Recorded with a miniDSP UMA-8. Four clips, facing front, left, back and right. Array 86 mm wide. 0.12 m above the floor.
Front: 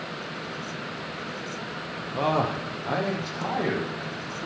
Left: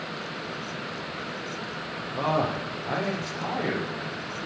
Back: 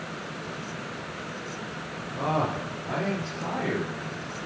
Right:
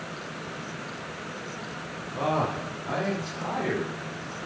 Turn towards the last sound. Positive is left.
turn(degrees=10)